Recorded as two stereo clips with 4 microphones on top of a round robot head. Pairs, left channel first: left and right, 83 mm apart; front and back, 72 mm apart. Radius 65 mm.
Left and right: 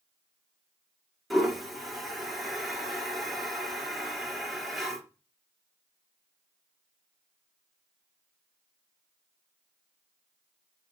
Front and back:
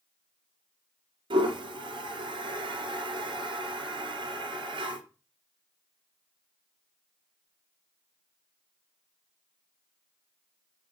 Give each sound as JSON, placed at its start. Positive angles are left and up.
{"t": 1.3, "sound": "a toilet flushing", "azimuth_deg": 180, "distance_m": 3.0}